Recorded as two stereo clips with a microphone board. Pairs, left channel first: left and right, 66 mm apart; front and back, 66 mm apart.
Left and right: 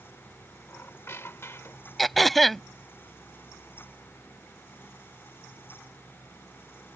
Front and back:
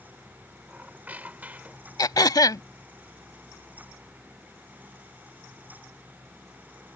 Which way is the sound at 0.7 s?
125° left.